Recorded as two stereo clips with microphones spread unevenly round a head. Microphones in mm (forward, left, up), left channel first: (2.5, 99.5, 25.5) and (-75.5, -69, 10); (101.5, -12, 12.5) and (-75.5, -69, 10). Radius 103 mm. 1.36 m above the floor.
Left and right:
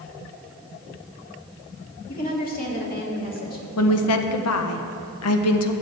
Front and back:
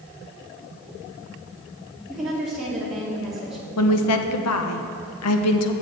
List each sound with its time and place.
2.1 s a woman speaking: 110° left, 2.5 m
3.8 s a woman speaking: 40° left, 0.8 m